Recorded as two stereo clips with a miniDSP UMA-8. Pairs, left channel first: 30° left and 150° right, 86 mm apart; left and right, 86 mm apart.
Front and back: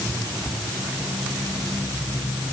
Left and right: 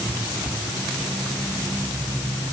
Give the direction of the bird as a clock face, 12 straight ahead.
No bird in this recording.